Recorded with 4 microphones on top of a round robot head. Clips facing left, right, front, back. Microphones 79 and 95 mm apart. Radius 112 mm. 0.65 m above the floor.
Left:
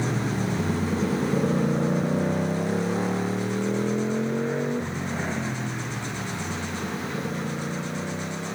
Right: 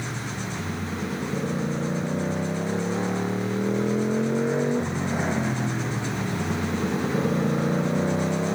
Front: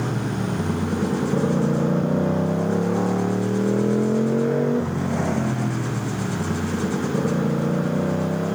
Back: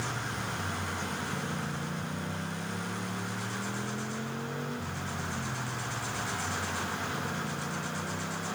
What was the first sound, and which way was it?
A motorcycle, 35° left.